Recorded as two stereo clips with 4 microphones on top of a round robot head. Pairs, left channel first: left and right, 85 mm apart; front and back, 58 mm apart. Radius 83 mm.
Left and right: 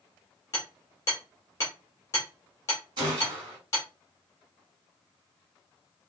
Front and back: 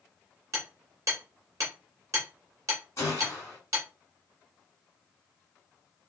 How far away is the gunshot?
About 2.0 m.